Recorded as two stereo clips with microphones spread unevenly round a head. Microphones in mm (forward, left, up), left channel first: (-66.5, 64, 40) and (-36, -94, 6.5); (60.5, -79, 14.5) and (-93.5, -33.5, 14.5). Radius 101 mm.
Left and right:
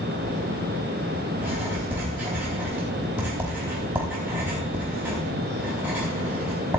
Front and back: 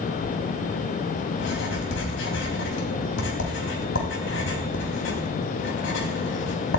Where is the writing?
5° left, 4 m.